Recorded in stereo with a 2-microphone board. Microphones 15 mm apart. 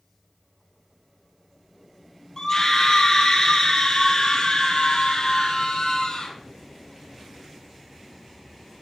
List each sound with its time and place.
2.4 s a scream: 30° left (ahead or behind), 2.5 m; by 6.3 s 70° left (ahead or behind), 3.5 m